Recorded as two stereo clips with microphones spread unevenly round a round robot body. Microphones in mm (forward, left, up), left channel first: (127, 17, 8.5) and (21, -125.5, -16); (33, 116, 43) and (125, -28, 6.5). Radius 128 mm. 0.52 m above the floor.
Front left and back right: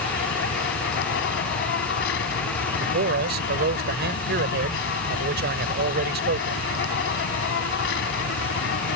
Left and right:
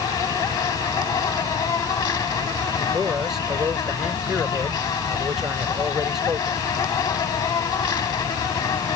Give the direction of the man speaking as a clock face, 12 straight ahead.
5 o'clock.